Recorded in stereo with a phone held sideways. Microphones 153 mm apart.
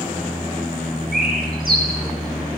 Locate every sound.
1.1 s a bird: 75° right (ahead or behind), 1.0 m